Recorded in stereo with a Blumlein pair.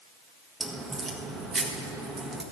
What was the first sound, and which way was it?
A crack, 5° right.